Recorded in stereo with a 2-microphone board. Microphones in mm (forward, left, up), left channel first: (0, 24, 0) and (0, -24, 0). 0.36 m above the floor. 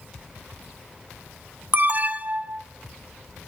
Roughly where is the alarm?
Right.